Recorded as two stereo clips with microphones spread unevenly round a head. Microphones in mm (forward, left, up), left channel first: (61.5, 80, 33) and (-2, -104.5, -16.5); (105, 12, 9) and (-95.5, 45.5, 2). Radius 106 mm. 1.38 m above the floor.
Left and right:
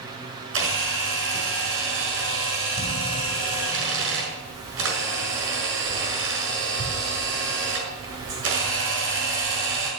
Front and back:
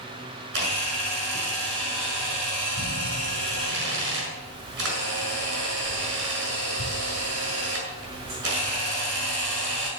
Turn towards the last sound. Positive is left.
turn(degrees=-145)